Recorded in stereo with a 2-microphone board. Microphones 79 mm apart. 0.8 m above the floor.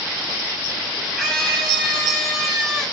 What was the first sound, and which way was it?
A scream, 5° left (ahead or behind).